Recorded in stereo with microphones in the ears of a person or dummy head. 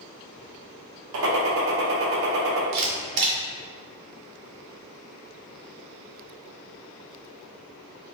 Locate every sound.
1.1 s a gunshot: 70° right (ahead or behind), 1.0 m
2.7 s a camera shutter: 55° right (ahead or behind), 1.2 m